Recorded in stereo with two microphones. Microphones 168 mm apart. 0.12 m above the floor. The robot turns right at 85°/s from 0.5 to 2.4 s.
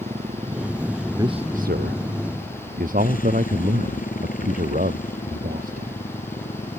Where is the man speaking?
160° right; by 6.0 s 55° right.